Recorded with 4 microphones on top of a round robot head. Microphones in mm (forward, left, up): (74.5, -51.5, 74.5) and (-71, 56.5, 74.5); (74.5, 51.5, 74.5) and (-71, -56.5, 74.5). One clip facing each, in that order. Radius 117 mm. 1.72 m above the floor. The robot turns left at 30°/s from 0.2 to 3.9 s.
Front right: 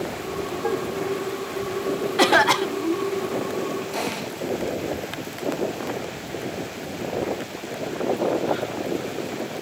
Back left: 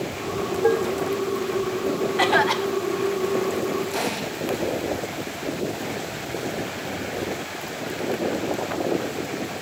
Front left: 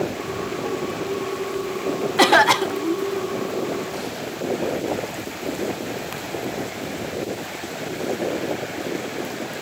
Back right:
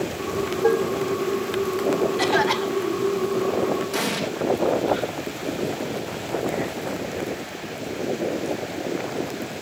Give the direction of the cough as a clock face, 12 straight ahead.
12 o'clock.